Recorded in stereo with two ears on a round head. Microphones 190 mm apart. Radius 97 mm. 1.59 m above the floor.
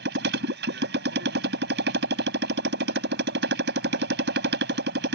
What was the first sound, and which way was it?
A motorcycle, 50° right (ahead or behind).